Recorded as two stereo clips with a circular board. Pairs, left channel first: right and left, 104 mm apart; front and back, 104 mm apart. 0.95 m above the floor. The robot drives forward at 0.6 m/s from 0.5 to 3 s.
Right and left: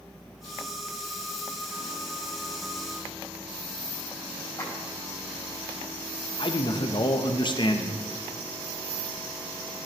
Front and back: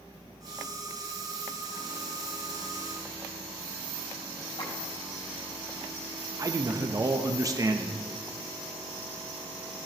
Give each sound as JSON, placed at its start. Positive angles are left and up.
{"t": 4.6, "sound": "a clap", "azimuth_deg": -30, "distance_m": 4.0}
{"t": 6.4, "sound": "a man speaking", "azimuth_deg": -125, "distance_m": 0.6}